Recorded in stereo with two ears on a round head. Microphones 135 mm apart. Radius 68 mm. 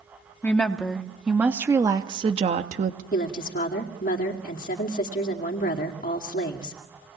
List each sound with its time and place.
0.4 s a woman speaking: 10° left (ahead or behind), 1.5 m; by 3.0 s 55° right (ahead or behind), 1.1 m
3.1 s a woman speaking: 60° left (ahead or behind), 2.5 m